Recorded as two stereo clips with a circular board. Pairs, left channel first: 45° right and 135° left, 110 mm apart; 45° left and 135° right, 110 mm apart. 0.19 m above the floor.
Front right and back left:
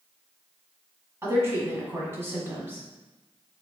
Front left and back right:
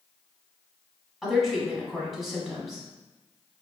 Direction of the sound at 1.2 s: 140° left.